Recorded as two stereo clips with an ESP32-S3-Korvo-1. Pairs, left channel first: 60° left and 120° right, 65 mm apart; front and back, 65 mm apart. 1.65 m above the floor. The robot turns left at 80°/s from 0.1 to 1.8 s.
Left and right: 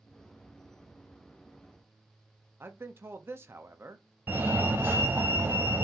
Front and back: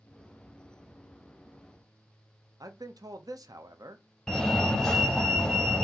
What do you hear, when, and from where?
2.6 s a man speaking: 170° right, 0.7 m
4.3 s a fire alarm: 80° right, 0.8 m